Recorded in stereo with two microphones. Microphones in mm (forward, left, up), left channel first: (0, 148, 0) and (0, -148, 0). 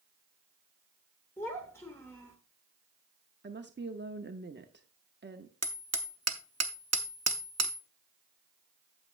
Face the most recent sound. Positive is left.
turn(degrees=-60)  # may be behind; listen again after turning